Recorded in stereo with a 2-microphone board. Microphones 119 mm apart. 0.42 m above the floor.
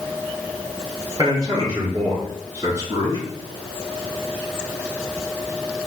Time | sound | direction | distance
1.2 | a man speaking | 30° right (ahead or behind) | 1.0 m